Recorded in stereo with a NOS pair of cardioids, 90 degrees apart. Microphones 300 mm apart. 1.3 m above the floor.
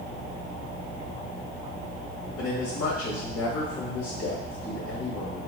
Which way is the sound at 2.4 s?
50° left.